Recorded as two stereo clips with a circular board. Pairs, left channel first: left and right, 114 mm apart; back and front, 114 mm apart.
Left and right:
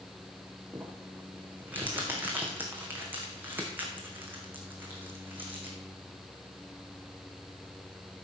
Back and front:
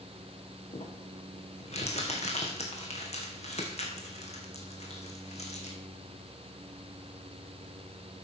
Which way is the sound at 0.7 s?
165° right.